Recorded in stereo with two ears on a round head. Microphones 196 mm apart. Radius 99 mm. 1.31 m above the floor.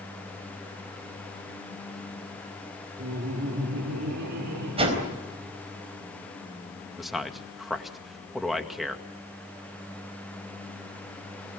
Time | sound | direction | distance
3.0 | laughter | 50° right (ahead or behind) | 2 m
4.8 | a whoosh | 25° right (ahead or behind) | 4 m
7.0 | a man speaking | centre (ahead or behind) | 1.9 m